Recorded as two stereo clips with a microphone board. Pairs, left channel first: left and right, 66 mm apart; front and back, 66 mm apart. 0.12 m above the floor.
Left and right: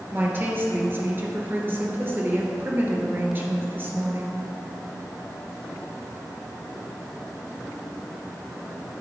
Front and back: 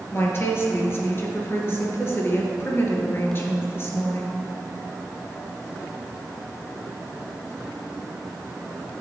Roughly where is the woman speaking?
Ahead right.